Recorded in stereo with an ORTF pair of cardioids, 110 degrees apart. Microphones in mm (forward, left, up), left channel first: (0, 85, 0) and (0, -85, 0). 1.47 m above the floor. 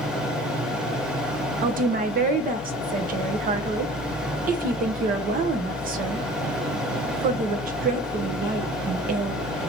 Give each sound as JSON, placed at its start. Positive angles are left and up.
{"t": 0.0, "sound": "a fan", "azimuth_deg": -5, "distance_m": 1.4}
{"t": 1.6, "sound": "a woman speaking", "azimuth_deg": -55, "distance_m": 0.9}